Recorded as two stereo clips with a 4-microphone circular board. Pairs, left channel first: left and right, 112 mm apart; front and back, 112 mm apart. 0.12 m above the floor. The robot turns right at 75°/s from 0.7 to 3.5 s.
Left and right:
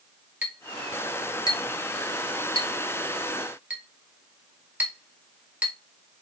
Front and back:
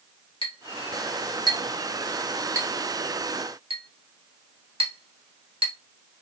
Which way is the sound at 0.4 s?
15° right.